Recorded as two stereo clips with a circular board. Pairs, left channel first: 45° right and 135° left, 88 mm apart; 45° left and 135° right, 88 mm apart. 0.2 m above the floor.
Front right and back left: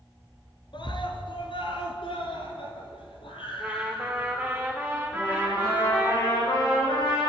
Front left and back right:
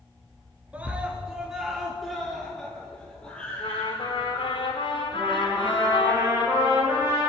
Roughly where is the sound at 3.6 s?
Ahead left.